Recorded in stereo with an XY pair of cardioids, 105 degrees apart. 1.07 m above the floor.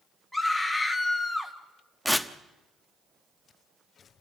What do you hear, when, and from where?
0.3 s a scream: 5° left, 1.7 m
2.0 s tearing paper: straight ahead, 1.1 m